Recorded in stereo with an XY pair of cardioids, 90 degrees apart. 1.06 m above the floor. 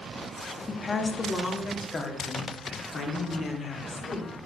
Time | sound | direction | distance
0.7 | a woman speaking | 30° left | 1.3 m